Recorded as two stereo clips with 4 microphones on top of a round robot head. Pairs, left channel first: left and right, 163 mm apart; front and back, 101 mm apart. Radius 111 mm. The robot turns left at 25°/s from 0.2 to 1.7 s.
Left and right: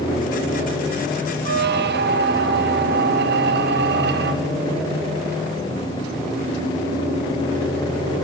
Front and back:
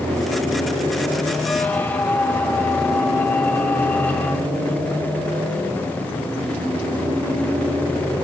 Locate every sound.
1.4 s a squeak: 70° right, 1.0 m; by 4.5 s 80° right, 1.0 m